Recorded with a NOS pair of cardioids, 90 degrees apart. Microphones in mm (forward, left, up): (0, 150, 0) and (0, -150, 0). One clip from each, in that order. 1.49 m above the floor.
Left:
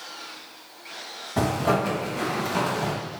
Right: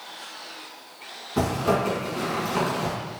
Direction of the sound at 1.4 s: 10° left.